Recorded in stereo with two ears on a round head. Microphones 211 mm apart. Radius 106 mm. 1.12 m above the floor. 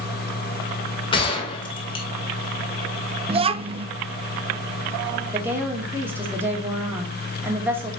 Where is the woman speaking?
10° right (ahead or behind), 2.5 m.